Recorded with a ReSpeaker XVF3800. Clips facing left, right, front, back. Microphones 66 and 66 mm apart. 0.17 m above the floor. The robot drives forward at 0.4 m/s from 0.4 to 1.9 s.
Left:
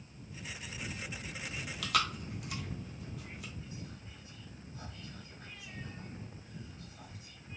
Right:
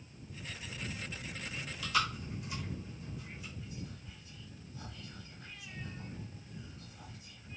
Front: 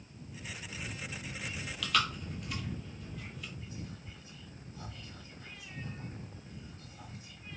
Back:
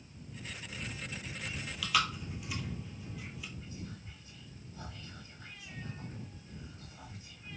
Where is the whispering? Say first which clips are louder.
Right 1 dB, front 1 dB; 135° left, 2.0 m.